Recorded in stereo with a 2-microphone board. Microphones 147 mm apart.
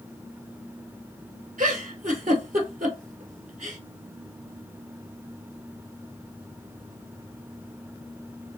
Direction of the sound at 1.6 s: 65° right (ahead or behind).